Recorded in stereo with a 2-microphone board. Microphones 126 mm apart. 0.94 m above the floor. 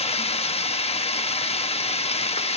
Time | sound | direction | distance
0.0 | running water | 55° left (ahead or behind) | 0.8 m